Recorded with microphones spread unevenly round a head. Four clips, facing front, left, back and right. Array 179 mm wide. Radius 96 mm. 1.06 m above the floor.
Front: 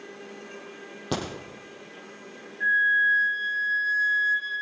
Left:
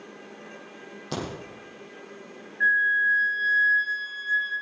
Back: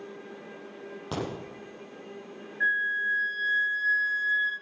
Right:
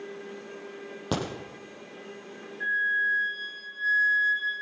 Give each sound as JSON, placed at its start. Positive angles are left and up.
{"t": 1.1, "sound": "a crack", "azimuth_deg": -65, "distance_m": 7.0}
{"t": 2.6, "sound": "a flute", "azimuth_deg": 140, "distance_m": 3.5}